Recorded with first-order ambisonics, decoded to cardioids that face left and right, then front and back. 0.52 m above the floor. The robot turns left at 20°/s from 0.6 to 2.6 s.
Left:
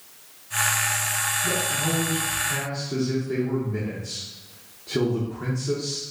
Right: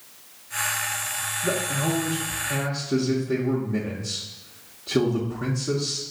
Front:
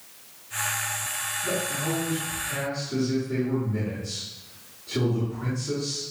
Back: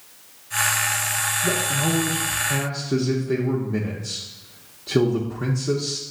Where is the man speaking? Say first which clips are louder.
Left 1 dB, back 5 dB; 135° right, 0.8 m; by 6.0 s 160° right, 0.8 m.